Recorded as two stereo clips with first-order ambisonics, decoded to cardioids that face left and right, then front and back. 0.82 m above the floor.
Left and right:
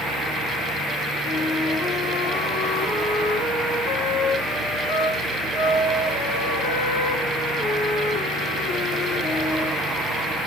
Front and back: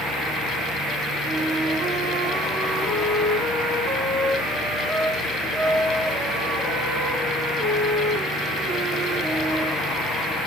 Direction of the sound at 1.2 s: 130° left.